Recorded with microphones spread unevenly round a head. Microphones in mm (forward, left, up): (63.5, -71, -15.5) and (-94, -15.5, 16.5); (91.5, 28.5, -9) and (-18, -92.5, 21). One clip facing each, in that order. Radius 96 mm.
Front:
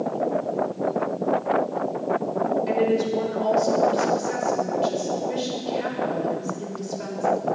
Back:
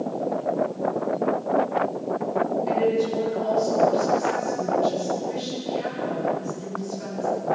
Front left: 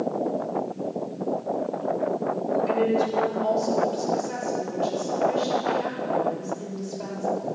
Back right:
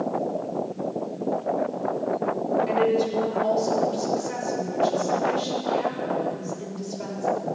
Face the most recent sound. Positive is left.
turn(degrees=-45)